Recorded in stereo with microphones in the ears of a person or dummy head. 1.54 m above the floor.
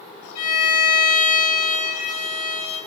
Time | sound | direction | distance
0.3 | a violin | 35° left (ahead or behind) | 2.0 m